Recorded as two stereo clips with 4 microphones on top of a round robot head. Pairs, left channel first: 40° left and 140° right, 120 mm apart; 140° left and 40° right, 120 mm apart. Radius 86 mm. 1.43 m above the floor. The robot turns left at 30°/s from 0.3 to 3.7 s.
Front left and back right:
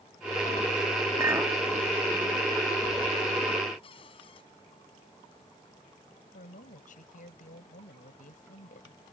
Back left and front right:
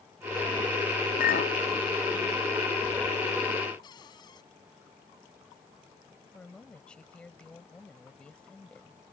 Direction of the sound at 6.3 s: 60° left.